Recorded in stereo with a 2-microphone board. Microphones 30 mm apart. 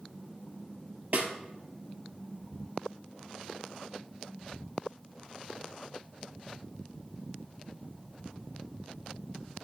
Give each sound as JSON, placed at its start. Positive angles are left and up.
{"t": 1.1, "sound": "a snare drum", "side_deg": -65, "distance_m": 1.0}